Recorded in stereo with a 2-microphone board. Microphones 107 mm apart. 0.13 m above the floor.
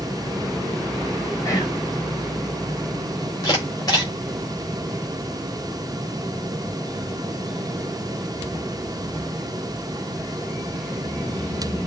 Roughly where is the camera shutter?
Left.